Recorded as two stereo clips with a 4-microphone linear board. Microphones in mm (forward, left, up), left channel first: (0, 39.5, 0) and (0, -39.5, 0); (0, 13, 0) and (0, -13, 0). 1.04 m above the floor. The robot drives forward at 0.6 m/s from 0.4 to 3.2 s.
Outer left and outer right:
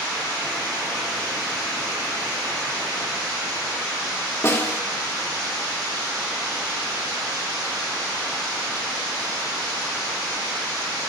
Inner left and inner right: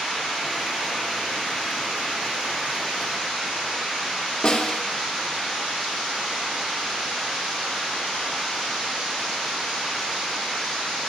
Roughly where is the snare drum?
Left.